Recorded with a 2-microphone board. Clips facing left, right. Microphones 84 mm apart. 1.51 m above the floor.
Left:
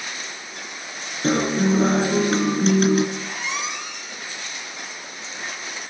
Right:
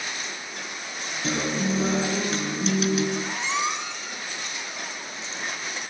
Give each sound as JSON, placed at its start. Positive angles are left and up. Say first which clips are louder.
{"t": 1.2, "sound": "a guitar", "louder": "left 7 dB", "side_deg": 50, "distance_m": 4.0}
{"t": 3.1, "sound": "a squeak", "louder": "right 2 dB", "side_deg": -30, "distance_m": 6.5}